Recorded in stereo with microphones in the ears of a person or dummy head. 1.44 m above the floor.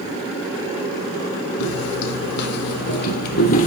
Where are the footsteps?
70° left (ahead or behind), 4.5 m; by 3.7 s 45° left (ahead or behind), 2.5 m.